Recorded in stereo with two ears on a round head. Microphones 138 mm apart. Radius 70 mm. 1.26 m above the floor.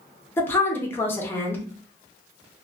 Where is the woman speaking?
15° left (ahead or behind), 0.6 m.